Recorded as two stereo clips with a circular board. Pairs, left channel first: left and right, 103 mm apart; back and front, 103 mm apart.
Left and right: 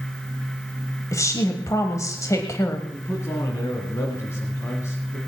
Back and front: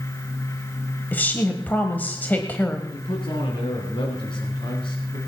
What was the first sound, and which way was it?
A woman speaking, 120° left.